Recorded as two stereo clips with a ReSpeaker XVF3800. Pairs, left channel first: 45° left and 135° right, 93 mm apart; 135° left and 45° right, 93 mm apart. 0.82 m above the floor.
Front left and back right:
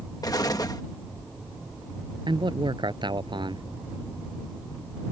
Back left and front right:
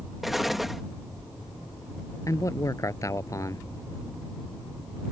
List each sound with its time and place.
0.2 s an explosion: 40° left
2.3 s a man speaking: 170° right